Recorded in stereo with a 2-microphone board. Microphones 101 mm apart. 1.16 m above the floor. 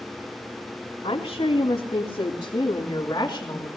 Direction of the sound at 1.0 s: 70° left (ahead or behind).